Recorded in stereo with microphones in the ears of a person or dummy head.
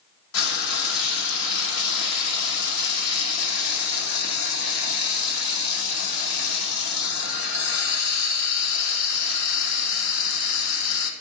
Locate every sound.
0.3 s frying: 75° left (ahead or behind), 0.8 m